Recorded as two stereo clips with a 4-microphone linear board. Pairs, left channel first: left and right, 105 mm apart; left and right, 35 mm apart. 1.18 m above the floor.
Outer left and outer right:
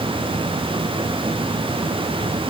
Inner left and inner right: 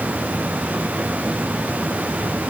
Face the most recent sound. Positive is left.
No sound to turn to.